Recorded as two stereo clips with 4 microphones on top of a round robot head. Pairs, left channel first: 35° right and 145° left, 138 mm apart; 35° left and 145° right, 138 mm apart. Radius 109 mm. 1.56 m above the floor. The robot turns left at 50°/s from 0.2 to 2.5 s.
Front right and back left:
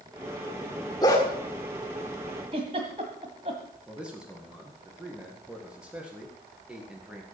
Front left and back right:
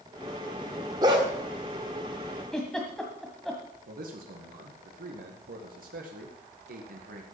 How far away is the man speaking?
About 2.0 m.